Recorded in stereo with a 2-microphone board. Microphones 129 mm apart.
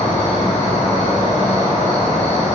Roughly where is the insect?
Left.